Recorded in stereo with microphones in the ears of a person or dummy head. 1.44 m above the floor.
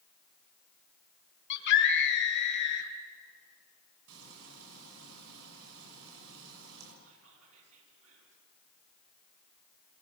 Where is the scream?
75° left (ahead or behind), 2.5 m.